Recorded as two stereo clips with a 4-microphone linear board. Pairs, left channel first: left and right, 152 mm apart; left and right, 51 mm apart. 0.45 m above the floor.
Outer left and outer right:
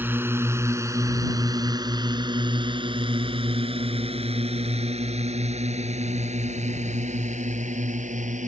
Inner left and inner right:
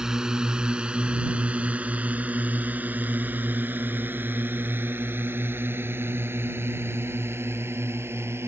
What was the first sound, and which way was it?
A drone, 15° right (ahead or behind).